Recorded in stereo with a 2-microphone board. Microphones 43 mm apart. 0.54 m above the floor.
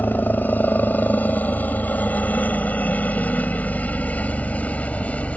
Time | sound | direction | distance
0.0 | a helicopter | 45° left (ahead or behind) | ?